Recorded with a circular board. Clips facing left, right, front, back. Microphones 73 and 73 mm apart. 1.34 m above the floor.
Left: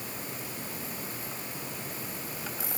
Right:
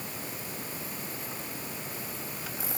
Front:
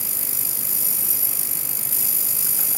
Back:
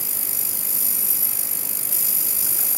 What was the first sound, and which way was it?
Only background noise.